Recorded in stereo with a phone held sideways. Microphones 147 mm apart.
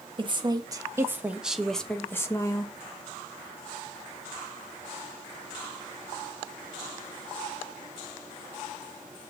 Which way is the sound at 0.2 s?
35° right (ahead or behind).